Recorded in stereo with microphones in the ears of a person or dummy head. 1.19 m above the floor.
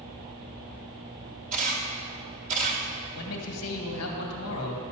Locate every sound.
1.5 s a camera shutter: 40° right (ahead or behind), 1.9 m
3.1 s a man speaking: 70° left (ahead or behind), 1.7 m